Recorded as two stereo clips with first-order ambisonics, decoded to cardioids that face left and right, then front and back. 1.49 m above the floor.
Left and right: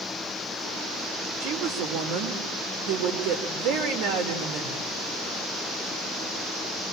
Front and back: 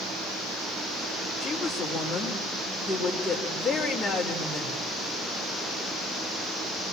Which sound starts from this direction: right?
A woman speaking, at 1.4 s.